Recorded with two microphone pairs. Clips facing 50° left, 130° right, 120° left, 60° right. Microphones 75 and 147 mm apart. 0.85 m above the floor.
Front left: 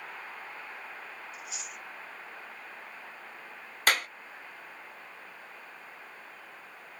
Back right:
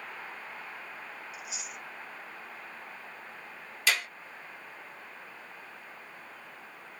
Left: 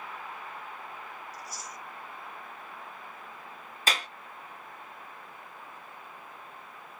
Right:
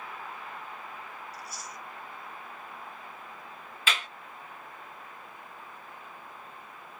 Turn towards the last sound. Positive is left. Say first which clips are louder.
# front left 3 dB, left 1 dB
turn(degrees=80)